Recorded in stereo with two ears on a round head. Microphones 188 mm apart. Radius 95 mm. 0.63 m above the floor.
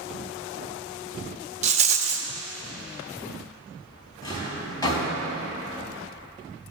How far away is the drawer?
About 2.5 m.